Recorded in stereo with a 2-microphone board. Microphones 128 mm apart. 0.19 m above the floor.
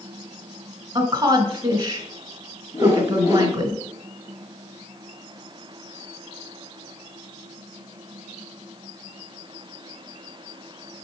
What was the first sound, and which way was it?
A woman speaking, 30° right (ahead or behind).